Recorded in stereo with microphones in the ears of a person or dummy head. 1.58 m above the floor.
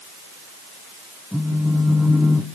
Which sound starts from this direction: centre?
A phone buzzing, at 1.3 s.